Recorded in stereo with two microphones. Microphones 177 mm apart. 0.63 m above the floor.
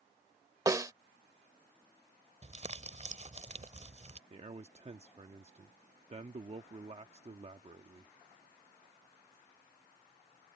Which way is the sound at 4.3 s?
40° right (ahead or behind).